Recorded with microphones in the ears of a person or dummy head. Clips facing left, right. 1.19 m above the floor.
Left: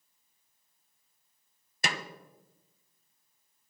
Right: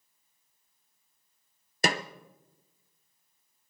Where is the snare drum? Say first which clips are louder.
Right 7 dB; 40° right (ahead or behind), 0.6 m.